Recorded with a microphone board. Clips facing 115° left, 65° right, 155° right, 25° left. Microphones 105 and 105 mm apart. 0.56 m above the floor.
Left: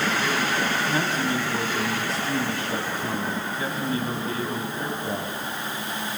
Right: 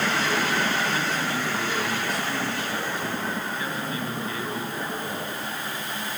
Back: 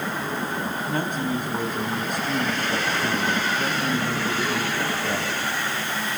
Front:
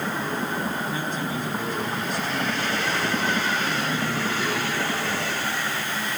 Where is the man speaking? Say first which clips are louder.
Left 2 dB, back 3 dB; 170° left, 4 m.